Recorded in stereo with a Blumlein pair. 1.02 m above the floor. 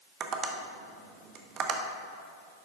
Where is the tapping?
30° right, 0.9 m.